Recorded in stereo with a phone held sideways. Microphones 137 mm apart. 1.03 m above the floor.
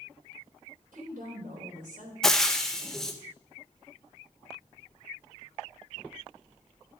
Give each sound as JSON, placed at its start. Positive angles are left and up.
{"t": 0.9, "sound": "a woman speaking", "side_deg": -85, "distance_m": 3.5}
{"t": 2.2, "sound": "frying", "side_deg": 5, "distance_m": 0.8}